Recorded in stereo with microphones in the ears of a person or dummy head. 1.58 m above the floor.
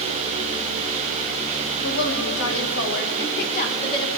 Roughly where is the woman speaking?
Left.